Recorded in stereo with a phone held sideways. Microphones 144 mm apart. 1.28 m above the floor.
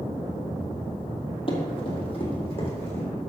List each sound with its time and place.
1.5 s running footsteps: 35° left (ahead or behind), 2.5 m; by 3.0 s 45° left (ahead or behind), 4.5 m